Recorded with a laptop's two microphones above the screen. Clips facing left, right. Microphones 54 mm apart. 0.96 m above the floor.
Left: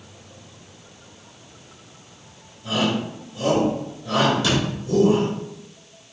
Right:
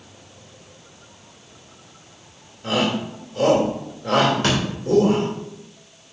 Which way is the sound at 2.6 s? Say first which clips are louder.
Right 1 dB; 80° right.